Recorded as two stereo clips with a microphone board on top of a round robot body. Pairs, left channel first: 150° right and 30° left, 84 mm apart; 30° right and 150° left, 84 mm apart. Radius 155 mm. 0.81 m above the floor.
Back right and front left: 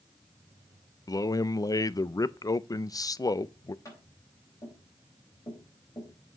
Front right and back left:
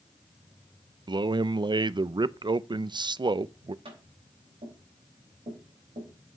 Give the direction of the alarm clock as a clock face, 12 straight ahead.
I don't hear an alarm clock.